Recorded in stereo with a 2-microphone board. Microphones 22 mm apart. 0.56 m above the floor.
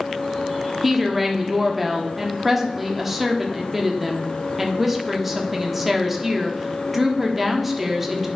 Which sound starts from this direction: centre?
A woman speaking, at 0.8 s.